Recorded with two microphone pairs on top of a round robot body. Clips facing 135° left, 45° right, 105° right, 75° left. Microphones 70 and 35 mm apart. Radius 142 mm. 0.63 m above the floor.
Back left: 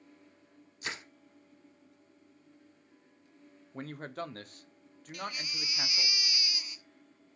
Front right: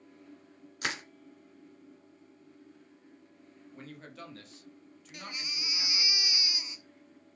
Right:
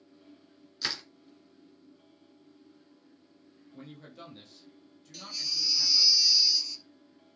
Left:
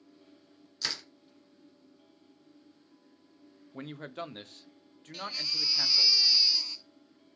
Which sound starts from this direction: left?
A man speaking, at 3.7 s.